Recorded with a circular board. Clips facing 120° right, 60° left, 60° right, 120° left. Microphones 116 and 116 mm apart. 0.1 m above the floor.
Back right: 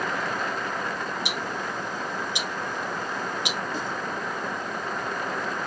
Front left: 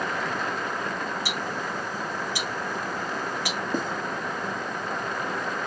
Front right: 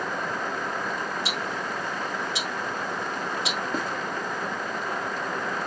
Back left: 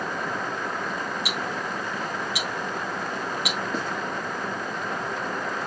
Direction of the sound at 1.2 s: 75° right.